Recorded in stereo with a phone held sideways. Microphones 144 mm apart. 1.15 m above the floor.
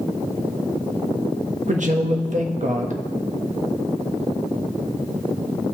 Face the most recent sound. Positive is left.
turn(degrees=-60)  # may be behind; listen again after turning